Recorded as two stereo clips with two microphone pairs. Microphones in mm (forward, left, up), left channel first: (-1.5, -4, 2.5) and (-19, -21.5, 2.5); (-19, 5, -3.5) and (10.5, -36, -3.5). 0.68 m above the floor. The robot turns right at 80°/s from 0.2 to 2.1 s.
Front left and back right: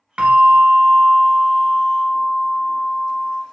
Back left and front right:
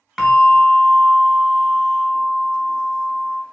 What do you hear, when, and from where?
0.2 s a bell: 145° right, 1.0 m; by 3.4 s 5° left, 1.0 m